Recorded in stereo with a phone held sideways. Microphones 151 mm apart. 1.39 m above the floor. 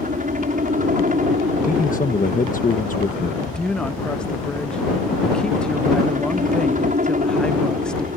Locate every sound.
0.0 s a helicopter: 60° right (ahead or behind)
1.6 s a man speaking: 60° left (ahead or behind)
3.4 s a woman speaking: 5° left (ahead or behind)